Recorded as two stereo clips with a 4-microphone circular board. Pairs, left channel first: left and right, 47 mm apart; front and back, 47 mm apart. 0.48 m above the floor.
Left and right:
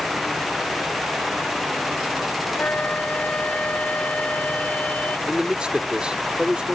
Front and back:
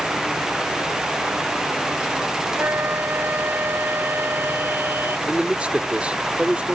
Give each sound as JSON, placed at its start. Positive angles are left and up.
{"t": 2.6, "sound": "a flute", "azimuth_deg": 145}
{"t": 5.3, "sound": "a man speaking", "azimuth_deg": -140}